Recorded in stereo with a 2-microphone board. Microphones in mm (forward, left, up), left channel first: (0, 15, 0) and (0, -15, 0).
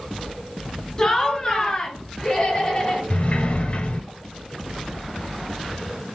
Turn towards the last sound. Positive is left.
turn(degrees=50)  # may be behind; listen again after turning